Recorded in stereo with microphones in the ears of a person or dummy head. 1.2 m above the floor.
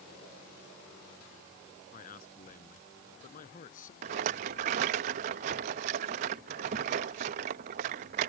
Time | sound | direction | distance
1.9 | a man speaking | 40° left (ahead or behind) | ?
4.0 | a rattle | 35° right (ahead or behind) | ?